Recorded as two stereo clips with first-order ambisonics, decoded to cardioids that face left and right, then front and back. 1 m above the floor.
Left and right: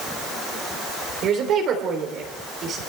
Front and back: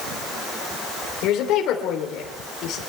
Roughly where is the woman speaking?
Ahead right.